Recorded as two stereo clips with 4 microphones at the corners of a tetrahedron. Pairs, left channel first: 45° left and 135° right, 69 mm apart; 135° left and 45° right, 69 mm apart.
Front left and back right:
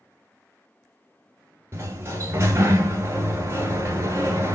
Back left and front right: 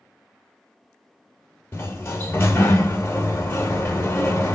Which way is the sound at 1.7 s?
Straight behind.